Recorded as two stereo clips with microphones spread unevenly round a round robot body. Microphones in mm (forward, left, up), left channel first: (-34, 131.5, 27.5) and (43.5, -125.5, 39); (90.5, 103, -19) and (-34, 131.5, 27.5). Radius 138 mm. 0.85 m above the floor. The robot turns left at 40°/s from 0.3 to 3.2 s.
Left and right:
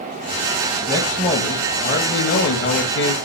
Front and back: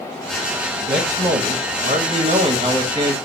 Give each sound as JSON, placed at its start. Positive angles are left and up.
{"t": 0.9, "sound": "a man speaking", "azimuth_deg": -175, "distance_m": 1.1}